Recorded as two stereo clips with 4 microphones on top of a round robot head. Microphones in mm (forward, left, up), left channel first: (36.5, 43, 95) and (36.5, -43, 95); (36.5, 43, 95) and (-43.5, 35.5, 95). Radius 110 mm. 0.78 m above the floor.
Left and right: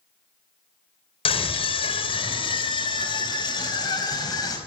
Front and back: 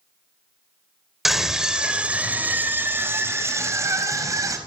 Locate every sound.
1.2 s a scream: 100° left, 3.5 m; by 4.6 s 140° left, 5.5 m